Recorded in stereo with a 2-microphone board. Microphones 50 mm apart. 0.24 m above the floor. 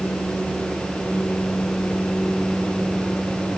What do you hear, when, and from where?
Only background noise.